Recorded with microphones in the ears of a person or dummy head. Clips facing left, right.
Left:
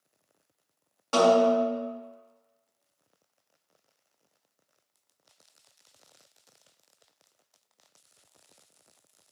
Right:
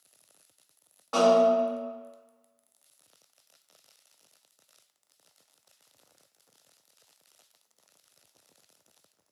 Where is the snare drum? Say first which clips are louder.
Even; 40° left (ahead or behind), 1.3 m.